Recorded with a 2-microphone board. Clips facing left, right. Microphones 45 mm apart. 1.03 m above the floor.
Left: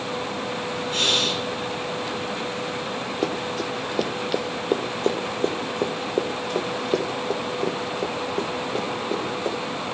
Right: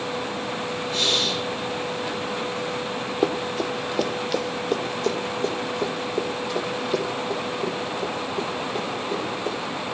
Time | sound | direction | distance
0.9 | breathing | 65° left (ahead or behind) | 3 m
3.2 | running footsteps | 10° right (ahead or behind) | 1.1 m